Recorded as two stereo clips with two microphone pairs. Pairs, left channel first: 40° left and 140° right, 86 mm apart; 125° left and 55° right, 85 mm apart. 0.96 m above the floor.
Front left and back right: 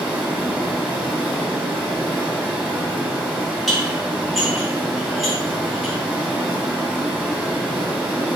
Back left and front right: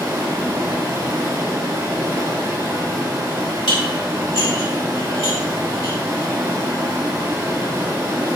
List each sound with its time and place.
0.0 s running water: 80° right, 1.1 m
3.7 s dishes clattering: 130° left, 1.5 m